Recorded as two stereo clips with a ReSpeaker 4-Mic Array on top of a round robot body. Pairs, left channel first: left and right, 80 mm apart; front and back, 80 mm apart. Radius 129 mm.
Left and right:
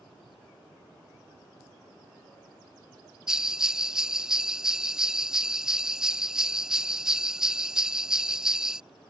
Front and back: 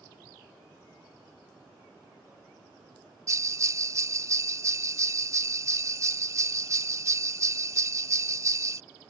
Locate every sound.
3.3 s a bell: 170° right